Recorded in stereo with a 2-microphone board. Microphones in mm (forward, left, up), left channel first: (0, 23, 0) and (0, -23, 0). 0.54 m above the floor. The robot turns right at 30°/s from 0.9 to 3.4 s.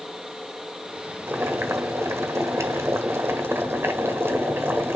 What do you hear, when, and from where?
1.3 s boiling: 125° right, 1.4 m; by 5.0 s 60° right, 1.4 m